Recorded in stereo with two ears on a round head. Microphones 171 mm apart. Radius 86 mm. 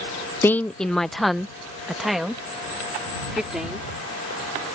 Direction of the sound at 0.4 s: 10° left (ahead or behind).